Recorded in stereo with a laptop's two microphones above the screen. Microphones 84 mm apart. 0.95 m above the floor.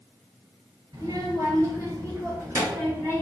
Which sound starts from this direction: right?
A child speaking, at 0.9 s.